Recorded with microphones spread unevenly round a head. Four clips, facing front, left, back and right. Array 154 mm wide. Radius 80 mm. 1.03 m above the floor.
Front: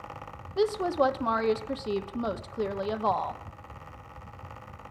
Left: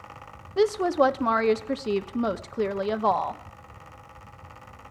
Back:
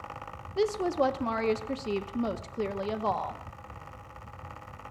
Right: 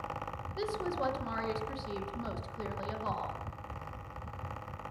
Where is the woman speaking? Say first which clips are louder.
Left 14 dB, front 1 dB; 90° left, 1.1 m.